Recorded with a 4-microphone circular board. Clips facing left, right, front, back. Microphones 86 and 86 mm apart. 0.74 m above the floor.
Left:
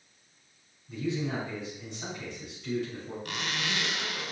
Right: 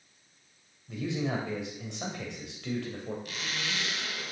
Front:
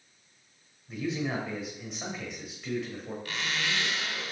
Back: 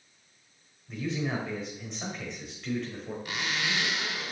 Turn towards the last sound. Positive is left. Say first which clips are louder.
# left 3 dB, back 1 dB
turn(degrees=110)